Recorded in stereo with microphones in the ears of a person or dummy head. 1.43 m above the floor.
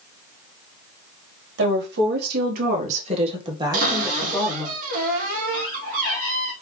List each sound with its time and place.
1.6 s a woman speaking: 75° right (ahead or behind), 2.5 m; by 4.7 s centre (ahead or behind), 2 m
3.7 s a cupboard door: 60° right (ahead or behind), 2.5 m